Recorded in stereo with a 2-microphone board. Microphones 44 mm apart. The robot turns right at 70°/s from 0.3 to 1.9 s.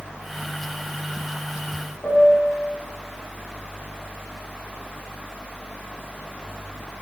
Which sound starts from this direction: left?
A piano, at 2.0 s.